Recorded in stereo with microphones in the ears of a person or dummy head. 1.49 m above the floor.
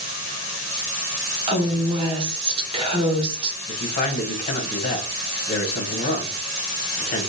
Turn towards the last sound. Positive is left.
turn(degrees=40)  # may be behind; listen again after turning